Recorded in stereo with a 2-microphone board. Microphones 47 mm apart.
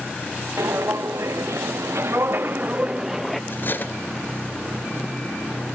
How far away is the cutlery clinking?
About 1.2 m.